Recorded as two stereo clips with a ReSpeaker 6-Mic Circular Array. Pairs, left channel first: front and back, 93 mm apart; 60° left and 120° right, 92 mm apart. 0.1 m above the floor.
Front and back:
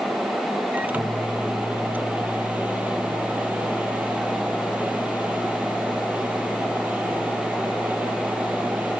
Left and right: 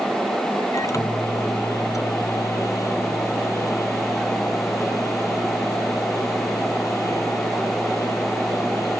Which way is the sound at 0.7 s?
110° left.